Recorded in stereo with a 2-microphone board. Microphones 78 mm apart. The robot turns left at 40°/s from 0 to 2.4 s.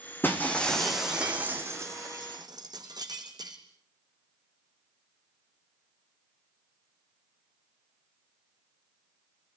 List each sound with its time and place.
0.2 s breaking glass: 25° left, 2.5 m; by 3.6 s 60° right, 2.5 m